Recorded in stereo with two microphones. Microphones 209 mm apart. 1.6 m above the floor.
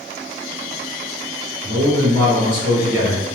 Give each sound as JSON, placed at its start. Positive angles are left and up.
{"t": 1.6, "sound": "a man speaking", "side_deg": -60, "distance_m": 1.2}